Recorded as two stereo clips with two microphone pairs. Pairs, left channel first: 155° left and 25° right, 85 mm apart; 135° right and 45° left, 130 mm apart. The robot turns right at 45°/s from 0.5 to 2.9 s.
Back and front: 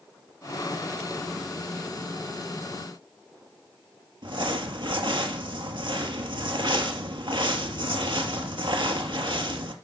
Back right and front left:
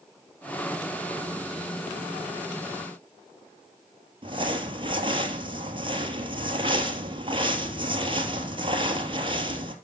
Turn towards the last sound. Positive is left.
turn(degrees=-5)